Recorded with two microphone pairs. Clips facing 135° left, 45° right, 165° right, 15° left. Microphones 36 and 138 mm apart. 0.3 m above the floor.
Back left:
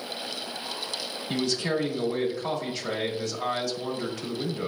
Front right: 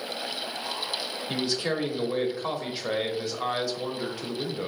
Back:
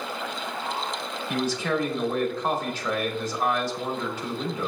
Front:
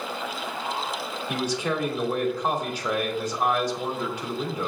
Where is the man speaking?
35° right, 0.9 m.